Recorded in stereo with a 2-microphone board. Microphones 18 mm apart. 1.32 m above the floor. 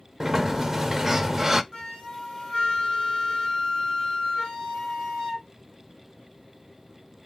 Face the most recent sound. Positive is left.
turn(degrees=35)  # may be behind; listen again after turning